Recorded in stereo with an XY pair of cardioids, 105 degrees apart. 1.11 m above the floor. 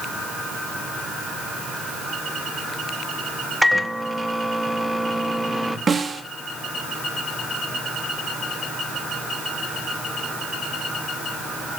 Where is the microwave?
Straight ahead, 1.0 m.